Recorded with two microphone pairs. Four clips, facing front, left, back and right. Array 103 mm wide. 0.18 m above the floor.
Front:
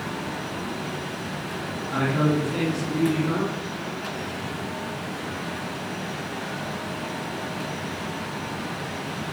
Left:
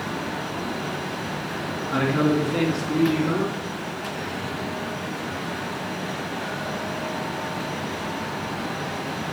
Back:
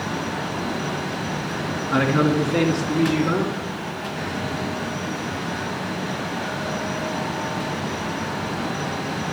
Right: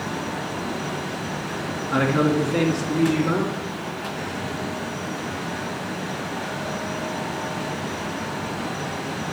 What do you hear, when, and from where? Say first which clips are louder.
1.9 s a man speaking: right 1 dB, back 4 dB; 160° right, 2.5 m; by 3.7 s 150° right, 3.5 m